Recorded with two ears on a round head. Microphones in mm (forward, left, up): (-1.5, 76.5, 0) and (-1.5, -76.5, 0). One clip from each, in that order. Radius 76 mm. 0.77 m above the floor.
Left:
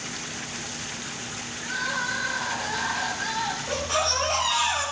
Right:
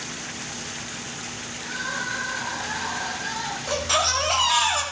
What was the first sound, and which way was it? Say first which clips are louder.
Crying: left 1 dB; 25° left (ahead or behind).